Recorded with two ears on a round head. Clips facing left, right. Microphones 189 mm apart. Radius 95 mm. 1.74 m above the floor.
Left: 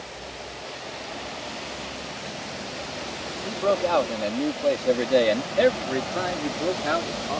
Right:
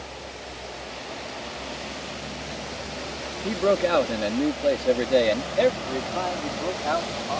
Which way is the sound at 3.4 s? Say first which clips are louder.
Right 2 dB; 30° right (ahead or behind).